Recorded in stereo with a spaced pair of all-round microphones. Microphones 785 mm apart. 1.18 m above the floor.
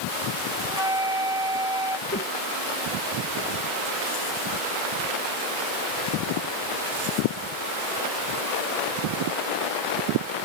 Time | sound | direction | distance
0.6 | a flute | 45° right (ahead or behind) | ?
2.1 | a whoosh | 15° left (ahead or behind) | ?